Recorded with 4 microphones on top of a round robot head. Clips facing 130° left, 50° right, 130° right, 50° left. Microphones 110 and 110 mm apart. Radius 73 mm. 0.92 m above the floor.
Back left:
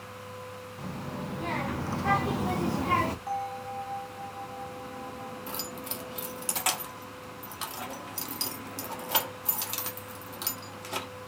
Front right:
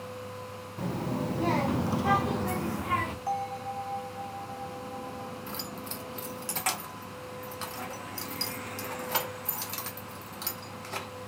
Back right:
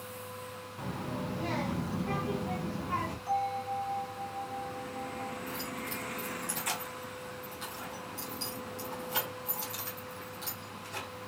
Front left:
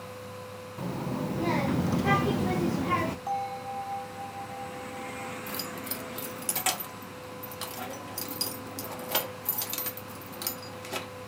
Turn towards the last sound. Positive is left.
turn(degrees=60)